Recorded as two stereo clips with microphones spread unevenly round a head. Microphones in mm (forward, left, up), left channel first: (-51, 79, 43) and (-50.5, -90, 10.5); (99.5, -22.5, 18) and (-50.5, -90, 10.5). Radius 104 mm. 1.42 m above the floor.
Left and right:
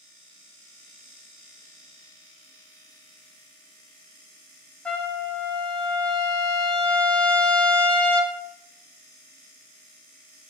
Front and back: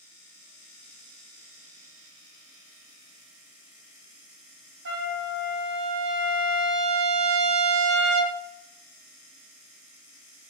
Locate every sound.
4.8 s a trumpet: 175° left, 1.0 m